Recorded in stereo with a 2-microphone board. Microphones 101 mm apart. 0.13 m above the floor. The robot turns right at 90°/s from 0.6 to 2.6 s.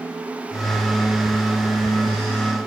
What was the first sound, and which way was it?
Only background noise.